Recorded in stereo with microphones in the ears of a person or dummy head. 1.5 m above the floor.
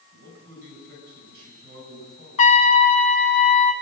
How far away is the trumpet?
About 1.1 m.